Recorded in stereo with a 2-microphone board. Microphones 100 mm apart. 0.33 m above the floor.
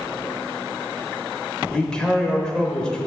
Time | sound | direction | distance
1.7 | a man speaking | 10° left (ahead or behind) | 0.8 m